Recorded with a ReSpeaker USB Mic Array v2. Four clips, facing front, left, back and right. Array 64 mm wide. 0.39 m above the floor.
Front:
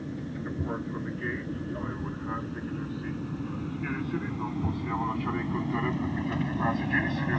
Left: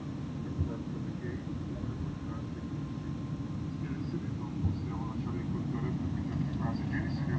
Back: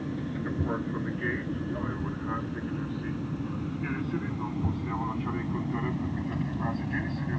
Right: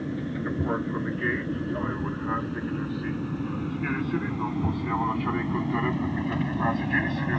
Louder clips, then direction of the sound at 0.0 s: Right 9 dB, back 3 dB; 100° right.